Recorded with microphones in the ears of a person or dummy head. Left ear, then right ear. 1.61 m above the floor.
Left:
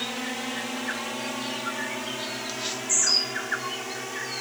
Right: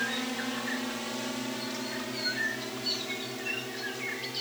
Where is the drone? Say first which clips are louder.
Left 1 dB; 25° left (ahead or behind); by 4.4 s 50° left (ahead or behind).